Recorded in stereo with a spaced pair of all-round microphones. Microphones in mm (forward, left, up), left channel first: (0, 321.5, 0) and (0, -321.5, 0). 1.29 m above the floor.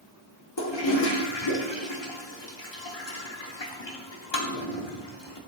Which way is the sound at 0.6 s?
45° left (ahead or behind).